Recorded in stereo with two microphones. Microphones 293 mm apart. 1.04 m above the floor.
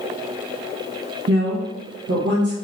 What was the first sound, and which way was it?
A woman speaking, 55° right (ahead or behind).